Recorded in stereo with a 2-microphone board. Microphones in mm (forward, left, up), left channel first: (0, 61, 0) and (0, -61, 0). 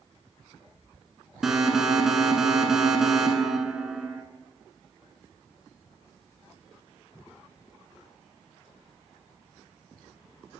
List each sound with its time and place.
1.4 s an alarm: 5° right (ahead or behind), 0.8 m